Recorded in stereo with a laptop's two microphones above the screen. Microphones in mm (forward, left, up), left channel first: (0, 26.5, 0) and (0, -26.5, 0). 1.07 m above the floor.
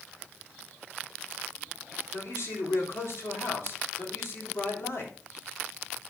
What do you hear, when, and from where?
2.1 s a man speaking: 60° left (ahead or behind), 3.5 m